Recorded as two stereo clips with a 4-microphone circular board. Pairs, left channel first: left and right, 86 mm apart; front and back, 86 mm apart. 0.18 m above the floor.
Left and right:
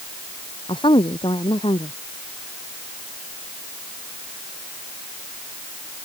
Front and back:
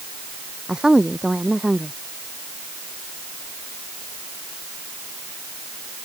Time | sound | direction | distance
0.7 | a woman speaking | 100° left | ?